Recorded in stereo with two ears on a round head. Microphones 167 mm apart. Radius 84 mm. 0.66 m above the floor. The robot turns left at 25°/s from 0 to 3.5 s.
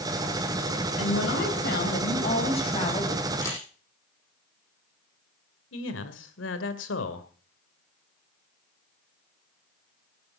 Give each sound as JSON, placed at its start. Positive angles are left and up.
{"t": 1.0, "sound": "a woman speaking", "azimuth_deg": 75, "distance_m": 4.0}
{"t": 3.4, "sound": "a camera shutter", "side_deg": 20, "distance_m": 9.5}
{"t": 5.7, "sound": "a man speaking", "side_deg": 75, "distance_m": 2.5}